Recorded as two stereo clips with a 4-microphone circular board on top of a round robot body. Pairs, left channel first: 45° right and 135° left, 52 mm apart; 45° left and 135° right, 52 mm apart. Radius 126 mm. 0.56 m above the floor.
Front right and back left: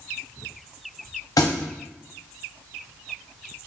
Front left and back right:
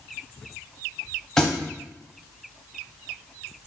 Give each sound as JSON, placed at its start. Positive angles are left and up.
{"t": 1.4, "sound": "a thud", "azimuth_deg": -35, "distance_m": 0.6}